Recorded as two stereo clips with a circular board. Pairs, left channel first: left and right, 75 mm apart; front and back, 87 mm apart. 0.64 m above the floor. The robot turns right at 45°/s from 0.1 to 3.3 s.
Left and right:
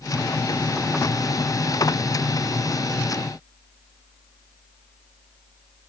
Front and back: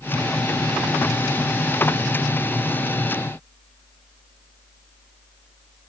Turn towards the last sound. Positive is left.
No sound to turn to.